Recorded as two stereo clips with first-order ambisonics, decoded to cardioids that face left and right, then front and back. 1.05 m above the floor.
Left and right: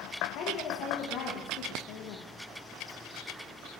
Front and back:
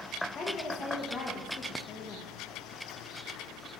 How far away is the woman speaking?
About 0.8 m.